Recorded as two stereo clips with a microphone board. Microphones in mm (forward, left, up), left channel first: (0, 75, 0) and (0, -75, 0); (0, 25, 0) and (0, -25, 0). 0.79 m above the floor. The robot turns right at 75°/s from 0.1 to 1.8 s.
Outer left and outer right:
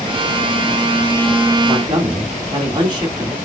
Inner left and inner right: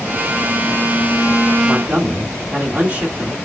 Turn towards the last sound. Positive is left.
turn(degrees=-30)  # may be behind; listen again after turning